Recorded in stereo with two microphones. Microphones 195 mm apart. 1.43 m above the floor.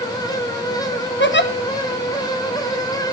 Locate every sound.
1.2 s a giggle: 70° left (ahead or behind), 0.8 m